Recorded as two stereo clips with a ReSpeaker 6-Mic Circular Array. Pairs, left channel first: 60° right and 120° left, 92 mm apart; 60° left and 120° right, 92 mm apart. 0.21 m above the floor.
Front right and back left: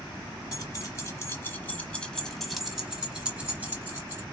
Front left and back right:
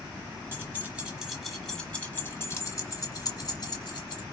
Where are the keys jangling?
70° right, 1.2 m; by 4.2 s 65° left, 1.6 m.